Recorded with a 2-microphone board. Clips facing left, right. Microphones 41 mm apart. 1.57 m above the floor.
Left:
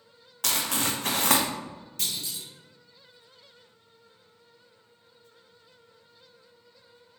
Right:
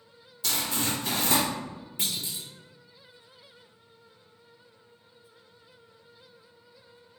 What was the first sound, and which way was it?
Crumpling, 65° left (ahead or behind).